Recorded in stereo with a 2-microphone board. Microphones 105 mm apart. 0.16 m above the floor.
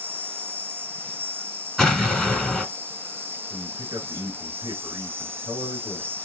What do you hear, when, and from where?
0.0 s an insect: 20° right (ahead or behind), 0.7 m
1.8 s an explosion: centre (ahead or behind), 1.1 m
3.5 s a man speaking: 40° right (ahead or behind), 2.0 m